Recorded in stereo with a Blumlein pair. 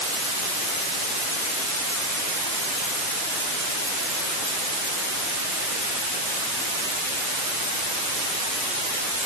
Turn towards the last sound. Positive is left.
No sound to turn to.